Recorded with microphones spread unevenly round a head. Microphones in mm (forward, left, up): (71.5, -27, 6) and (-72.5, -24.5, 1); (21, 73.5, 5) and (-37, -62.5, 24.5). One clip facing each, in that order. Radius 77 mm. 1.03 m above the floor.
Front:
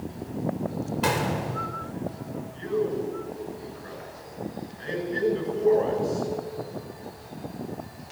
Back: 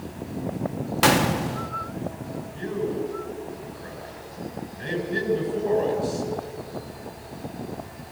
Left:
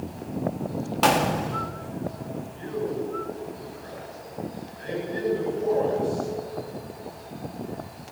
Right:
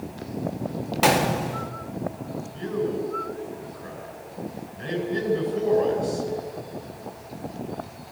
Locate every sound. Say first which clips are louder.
1.0 s a gunshot: back 7 dB, right 1 dB; 165° left, 1.5 m
2.5 s a man speaking: front 1 dB, right 3 dB; 150° right, 10 m